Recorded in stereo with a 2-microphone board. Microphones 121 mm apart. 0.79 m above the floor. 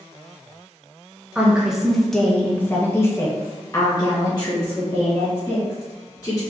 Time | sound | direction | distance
1.4 | a woman speaking | 10° right (ahead or behind) | 1.1 m